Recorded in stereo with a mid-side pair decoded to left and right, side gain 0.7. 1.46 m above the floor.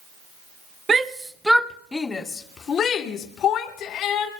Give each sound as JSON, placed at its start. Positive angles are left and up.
{"t": 0.9, "sound": "a shout", "azimuth_deg": -20, "distance_m": 1.2}